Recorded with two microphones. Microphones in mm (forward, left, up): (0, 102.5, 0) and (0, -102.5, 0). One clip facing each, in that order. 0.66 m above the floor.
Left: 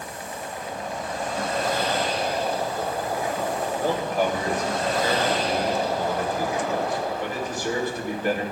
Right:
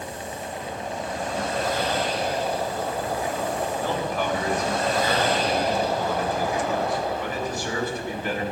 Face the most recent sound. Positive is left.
turn(degrees=45)  # may be behind; listen again after turning